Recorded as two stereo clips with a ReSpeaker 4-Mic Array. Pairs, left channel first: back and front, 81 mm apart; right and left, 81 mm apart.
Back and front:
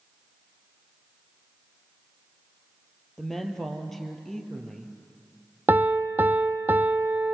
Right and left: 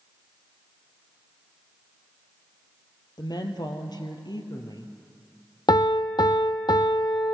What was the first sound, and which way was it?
A woman speaking, 95° right.